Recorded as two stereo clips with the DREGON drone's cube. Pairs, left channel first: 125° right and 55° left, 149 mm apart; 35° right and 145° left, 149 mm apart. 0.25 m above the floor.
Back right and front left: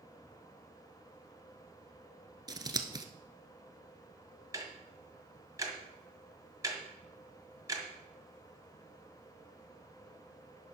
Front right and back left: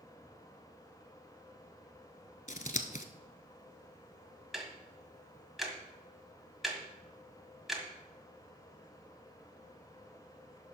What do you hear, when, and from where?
2.5 s scissors: 5° right, 0.8 m
4.5 s ticking: 60° left, 1.6 m